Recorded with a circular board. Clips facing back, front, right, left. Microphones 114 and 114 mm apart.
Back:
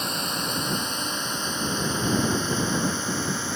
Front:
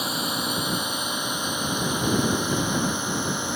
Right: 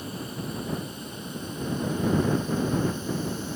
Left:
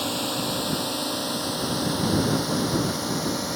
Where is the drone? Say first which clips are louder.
Front 2 dB, left 7 dB; 85° left; by 3.6 s 75° left.